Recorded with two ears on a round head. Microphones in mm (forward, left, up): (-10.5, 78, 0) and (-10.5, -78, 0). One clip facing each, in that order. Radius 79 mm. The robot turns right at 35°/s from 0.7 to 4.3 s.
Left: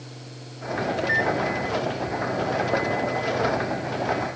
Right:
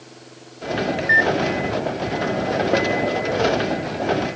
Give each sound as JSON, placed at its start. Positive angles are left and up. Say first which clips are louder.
{"t": 1.0, "sound": "a microwave", "louder": "right 3 dB", "side_deg": -20}